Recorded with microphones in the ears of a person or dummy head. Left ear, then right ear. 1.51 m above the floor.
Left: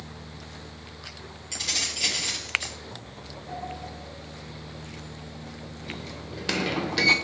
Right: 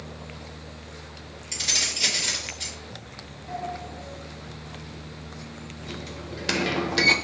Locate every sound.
1.5 s keys jangling: 5° right (ahead or behind), 3 m
3.5 s a sliding door: centre (ahead or behind), 0.8 m